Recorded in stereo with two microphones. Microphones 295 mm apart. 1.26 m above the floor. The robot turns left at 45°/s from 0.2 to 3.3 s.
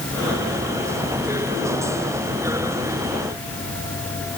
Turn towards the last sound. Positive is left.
No sound to turn to.